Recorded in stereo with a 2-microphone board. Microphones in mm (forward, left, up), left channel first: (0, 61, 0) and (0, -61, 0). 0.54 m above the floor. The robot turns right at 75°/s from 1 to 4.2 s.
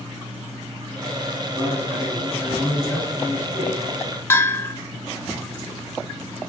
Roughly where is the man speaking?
Ahead right.